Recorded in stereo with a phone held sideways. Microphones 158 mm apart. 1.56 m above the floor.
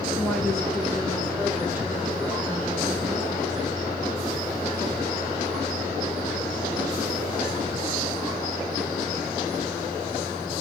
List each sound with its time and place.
0.2 s a woman speaking: 10° left (ahead or behind), 2.5 m; by 3.7 s 30° right (ahead or behind), 4 m